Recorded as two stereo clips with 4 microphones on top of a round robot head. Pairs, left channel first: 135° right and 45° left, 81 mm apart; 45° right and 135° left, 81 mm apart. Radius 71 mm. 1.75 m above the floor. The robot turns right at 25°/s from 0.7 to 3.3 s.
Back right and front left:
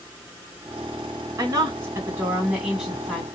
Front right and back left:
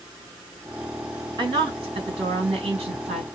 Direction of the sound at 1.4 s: 95° left.